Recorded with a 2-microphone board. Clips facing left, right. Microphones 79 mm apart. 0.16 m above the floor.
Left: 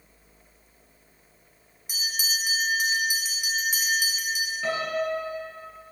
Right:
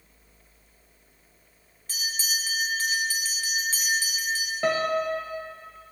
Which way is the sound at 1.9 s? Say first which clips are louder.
Left 1 dB; 15° left (ahead or behind).